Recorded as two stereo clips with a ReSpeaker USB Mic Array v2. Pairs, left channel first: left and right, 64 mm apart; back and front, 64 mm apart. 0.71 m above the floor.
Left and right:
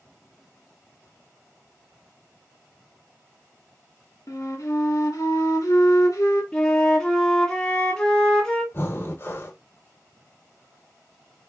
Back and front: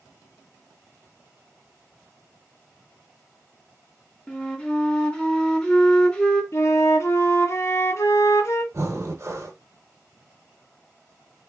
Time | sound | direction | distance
4.3 | a flute | 105° left | 0.9 m
6.5 | a flute | 165° left | 0.7 m
8.7 | breathing | 40° left | 0.7 m